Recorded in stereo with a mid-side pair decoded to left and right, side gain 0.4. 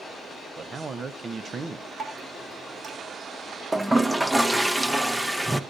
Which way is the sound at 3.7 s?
10° right.